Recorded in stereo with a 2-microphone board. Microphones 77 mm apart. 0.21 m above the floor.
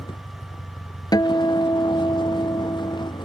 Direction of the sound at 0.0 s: 75° left (ahead or behind).